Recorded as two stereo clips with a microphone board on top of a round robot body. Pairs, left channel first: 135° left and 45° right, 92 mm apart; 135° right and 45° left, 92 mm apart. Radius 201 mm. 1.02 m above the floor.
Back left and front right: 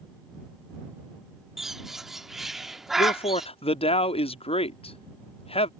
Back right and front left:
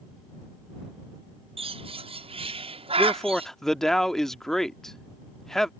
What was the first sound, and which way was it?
A bird, 45° left.